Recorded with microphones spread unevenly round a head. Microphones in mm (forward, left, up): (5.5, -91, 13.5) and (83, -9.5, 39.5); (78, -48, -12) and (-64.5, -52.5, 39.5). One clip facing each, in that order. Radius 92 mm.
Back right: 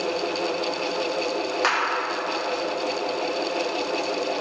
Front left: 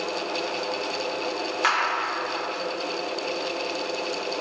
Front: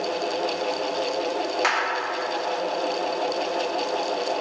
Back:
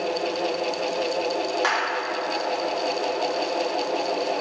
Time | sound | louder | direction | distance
1.6 | a clap | front left 1 dB, back 1 dB | 75° right | 2.5 m